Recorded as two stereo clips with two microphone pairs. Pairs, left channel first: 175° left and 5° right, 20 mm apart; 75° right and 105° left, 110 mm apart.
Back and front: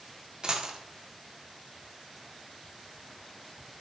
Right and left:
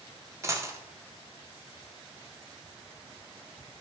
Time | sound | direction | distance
0.4 | a dropped coin | 40° left | 0.5 m